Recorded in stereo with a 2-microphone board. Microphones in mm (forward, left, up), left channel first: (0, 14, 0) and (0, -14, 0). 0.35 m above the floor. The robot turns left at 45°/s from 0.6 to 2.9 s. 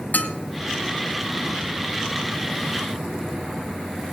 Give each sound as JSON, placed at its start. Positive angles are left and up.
{"t": 0.1, "sound": "dishes clattering", "side_deg": 70, "distance_m": 1.7}